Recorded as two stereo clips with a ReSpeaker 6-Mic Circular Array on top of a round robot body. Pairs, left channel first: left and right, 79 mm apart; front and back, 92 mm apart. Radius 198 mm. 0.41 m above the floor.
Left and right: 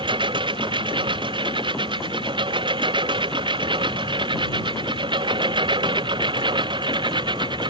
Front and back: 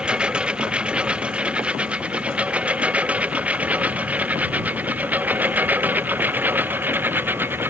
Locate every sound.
0.0 s a lawn mower: 100° right; by 7.7 s 110° right